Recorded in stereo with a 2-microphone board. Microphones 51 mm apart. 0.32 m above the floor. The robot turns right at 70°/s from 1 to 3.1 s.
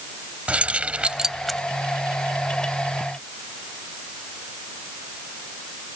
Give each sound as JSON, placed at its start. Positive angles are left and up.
{"t": 0.5, "sound": "keys jangling", "side_deg": -25}